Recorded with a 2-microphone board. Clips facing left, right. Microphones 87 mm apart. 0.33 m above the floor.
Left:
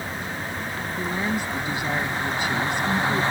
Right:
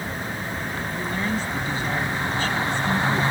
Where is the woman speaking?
15° left (ahead or behind).